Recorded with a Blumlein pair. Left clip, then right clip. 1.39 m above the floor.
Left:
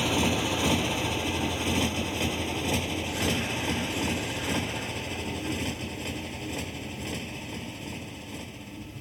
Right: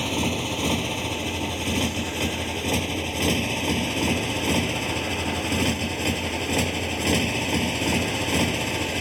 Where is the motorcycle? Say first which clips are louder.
Even; straight ahead; by 9.0 s 40° right.